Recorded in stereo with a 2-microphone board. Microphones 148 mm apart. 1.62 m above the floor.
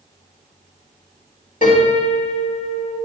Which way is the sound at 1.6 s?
60° left (ahead or behind).